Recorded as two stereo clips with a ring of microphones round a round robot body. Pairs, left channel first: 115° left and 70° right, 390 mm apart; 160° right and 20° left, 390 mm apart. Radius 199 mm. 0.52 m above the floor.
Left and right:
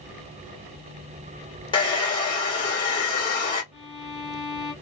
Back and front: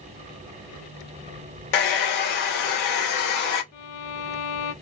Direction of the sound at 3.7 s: 155° right.